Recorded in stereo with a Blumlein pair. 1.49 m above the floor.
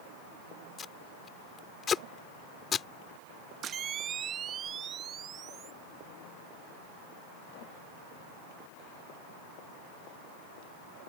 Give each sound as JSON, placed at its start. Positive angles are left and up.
{"t": 0.8, "sound": "tape being pulled", "azimuth_deg": 20}
{"t": 3.6, "sound": "a camera shutter", "azimuth_deg": -25}